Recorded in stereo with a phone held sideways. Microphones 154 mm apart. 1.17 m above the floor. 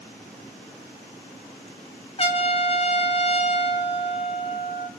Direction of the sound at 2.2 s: 40° left (ahead or behind).